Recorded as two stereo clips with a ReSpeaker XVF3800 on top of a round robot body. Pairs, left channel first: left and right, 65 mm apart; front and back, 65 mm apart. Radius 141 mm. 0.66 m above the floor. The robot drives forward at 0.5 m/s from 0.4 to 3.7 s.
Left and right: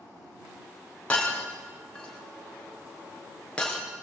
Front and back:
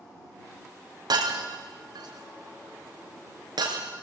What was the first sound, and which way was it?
Breaking glass, 165° left.